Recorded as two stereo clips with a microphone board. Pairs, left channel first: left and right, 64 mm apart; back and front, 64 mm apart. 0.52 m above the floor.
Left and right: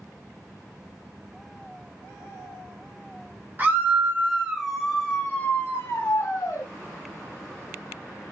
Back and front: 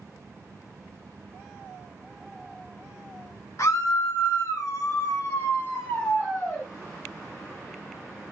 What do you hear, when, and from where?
3.6 s a scream: 145° right, 1.3 m; by 6.7 s 100° left, 1.3 m